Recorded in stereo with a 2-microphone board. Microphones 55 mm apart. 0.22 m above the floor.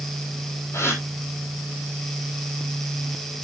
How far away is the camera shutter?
I don't hear a camera shutter.